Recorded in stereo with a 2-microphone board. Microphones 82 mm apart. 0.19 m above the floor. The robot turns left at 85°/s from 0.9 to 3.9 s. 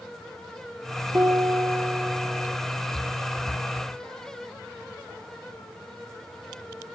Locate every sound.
1.1 s a piano: 105° right, 3 m; by 2.6 s 135° left, 3 m